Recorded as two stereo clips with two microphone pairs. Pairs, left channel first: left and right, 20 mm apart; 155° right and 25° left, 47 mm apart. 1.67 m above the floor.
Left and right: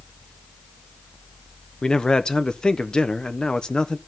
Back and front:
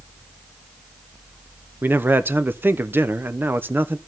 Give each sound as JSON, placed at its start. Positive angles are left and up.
{"t": 1.8, "sound": "a man speaking", "azimuth_deg": 55, "distance_m": 0.7}